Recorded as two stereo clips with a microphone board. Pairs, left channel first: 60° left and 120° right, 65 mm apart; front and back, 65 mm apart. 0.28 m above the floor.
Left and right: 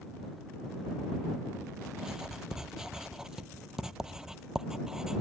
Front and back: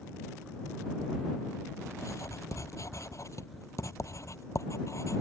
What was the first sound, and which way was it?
Writing, 40° right.